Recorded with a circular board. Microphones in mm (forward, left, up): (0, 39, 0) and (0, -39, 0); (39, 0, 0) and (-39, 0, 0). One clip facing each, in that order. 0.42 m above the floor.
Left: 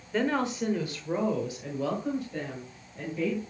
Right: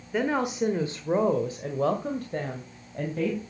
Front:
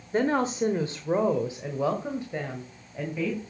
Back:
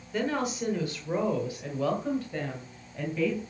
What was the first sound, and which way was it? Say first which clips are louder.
A woman speaking: right 1 dB, front 5 dB; 15° right.